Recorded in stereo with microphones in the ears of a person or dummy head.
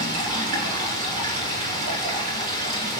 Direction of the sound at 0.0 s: 55° right (ahead or behind).